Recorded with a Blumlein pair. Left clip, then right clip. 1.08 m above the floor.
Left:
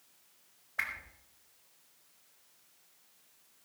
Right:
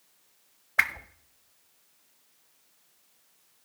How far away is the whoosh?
About 0.7 m.